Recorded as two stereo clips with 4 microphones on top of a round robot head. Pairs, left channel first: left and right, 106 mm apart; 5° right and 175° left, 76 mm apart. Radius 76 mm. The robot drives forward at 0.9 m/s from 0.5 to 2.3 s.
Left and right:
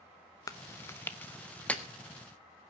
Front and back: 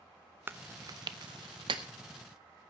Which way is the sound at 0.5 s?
130° left.